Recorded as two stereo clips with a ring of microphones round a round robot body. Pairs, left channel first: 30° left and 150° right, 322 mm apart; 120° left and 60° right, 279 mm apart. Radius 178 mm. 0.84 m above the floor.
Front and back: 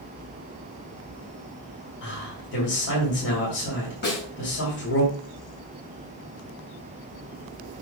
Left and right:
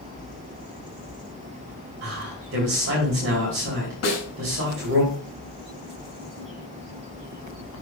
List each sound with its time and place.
2.0 s a man speaking: 20° right, 3.5 m
4.0 s a snare drum: 85° left, 4 m